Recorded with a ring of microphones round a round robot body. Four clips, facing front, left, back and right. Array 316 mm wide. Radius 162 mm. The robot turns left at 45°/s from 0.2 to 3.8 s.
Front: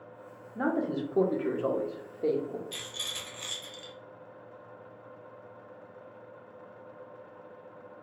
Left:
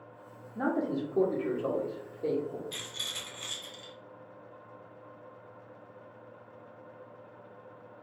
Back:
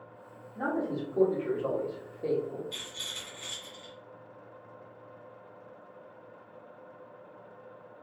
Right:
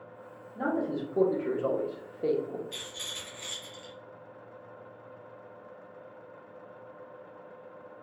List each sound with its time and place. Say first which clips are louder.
0.6 s a man speaking: even, front 2 dB; 20° left, 0.8 m; by 2.6 s 70° right, 0.8 m
2.7 s a rattle: right 1 dB, front 2 dB; 50° left, 1.2 m; by 3.9 s straight ahead, 1.2 m